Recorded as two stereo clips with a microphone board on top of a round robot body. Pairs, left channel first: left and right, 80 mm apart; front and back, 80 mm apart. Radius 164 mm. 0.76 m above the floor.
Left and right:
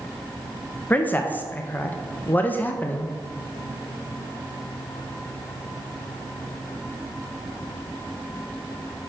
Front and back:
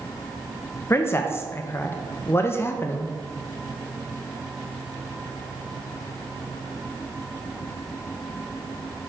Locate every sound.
0.9 s a man speaking: 35° left, 0.7 m